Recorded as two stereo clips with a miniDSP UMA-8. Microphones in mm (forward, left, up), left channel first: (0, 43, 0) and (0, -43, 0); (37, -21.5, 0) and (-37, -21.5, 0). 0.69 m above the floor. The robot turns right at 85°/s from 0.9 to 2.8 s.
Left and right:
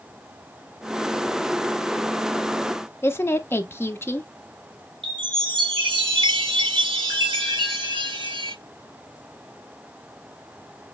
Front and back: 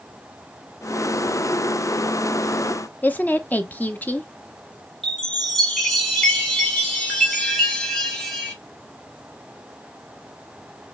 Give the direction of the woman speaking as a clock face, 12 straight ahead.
10 o'clock.